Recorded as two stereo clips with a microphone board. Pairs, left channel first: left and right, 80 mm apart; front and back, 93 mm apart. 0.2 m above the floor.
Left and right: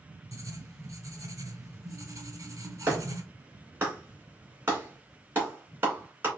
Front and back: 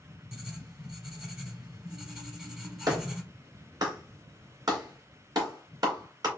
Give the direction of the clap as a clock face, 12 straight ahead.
5 o'clock.